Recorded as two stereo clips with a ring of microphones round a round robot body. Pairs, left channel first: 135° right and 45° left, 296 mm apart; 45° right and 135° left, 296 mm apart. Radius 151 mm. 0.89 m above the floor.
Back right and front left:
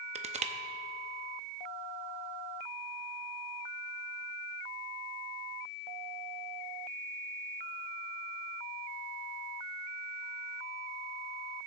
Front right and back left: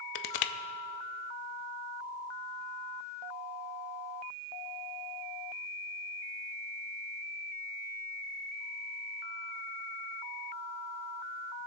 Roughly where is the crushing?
Ahead right.